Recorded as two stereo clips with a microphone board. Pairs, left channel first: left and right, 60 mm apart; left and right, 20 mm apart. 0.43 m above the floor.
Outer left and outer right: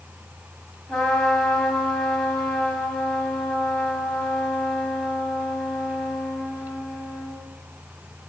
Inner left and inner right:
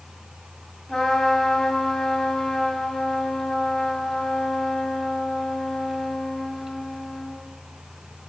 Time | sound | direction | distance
0.9 | a trumpet | 10° left (ahead or behind) | 2 m